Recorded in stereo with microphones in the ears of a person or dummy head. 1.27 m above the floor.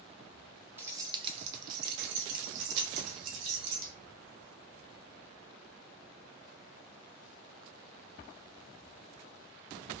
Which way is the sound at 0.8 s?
15° right (ahead or behind).